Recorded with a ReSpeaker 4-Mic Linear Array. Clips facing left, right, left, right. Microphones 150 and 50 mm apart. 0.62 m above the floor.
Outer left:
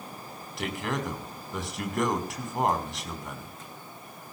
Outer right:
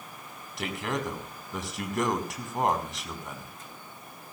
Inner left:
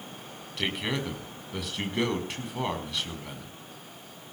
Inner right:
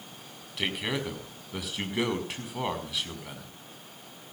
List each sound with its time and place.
0.6 s a man speaking: centre (ahead or behind), 5 m